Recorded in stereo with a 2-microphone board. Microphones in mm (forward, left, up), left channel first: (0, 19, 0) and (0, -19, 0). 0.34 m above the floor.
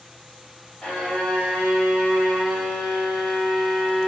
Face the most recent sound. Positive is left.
turn(degrees=35)  # may be behind; listen again after turning